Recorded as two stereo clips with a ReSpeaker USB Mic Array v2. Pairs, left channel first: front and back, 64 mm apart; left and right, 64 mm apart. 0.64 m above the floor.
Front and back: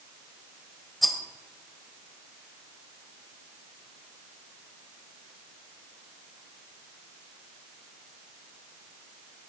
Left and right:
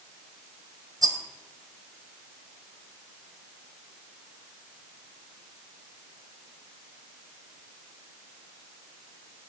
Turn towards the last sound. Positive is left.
turn(degrees=-90)